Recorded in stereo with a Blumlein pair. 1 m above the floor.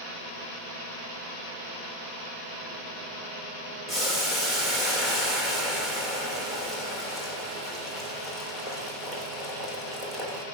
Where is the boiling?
Straight ahead, 2.5 m.